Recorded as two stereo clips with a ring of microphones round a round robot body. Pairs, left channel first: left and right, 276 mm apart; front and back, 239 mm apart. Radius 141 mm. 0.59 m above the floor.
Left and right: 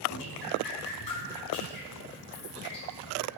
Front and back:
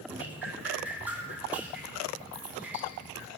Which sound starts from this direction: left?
Dripping, at 0.1 s.